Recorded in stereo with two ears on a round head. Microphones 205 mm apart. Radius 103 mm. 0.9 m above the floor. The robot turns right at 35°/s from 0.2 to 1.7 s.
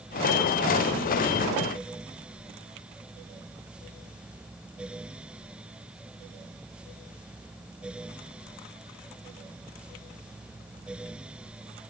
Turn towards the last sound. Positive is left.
No sound to turn to.